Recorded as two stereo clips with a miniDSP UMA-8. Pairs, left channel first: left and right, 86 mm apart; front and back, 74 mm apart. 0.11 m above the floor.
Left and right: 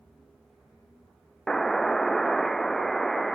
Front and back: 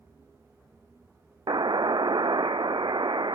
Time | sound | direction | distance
1.5 | a buzzer | 175° left | ?